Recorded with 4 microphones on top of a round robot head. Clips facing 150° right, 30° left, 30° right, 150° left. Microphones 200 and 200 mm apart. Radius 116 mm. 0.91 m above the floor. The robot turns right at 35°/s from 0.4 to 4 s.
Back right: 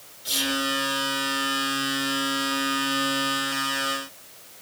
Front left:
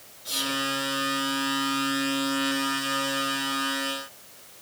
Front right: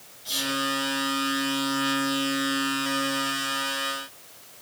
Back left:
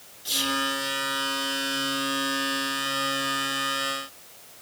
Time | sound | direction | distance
0.2 | whispering | 160° left | 1.6 m